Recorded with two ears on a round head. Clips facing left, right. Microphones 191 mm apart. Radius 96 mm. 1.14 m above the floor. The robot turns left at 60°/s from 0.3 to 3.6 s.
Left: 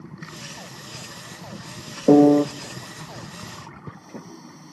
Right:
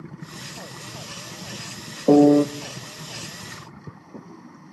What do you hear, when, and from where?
2.1 s a piano: 10° left (ahead or behind), 0.5 m; by 2.5 s 15° right (ahead or behind), 0.5 m